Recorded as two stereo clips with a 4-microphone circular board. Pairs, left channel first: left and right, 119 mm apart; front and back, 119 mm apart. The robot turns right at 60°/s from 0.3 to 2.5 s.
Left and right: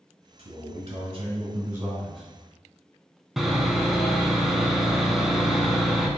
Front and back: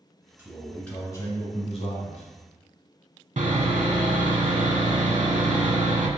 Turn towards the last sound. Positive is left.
turn(degrees=180)